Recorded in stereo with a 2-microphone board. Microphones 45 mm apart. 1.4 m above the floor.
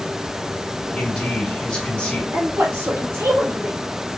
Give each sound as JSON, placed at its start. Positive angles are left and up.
{"t": 1.0, "sound": "a man speaking", "side_deg": 25, "distance_m": 1.7}
{"t": 2.3, "sound": "a woman speaking", "side_deg": -65, "distance_m": 0.9}